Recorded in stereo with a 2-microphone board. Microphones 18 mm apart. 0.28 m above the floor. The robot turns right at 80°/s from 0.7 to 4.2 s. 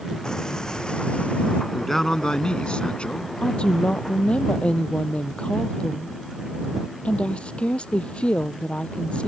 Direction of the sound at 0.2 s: 40° left.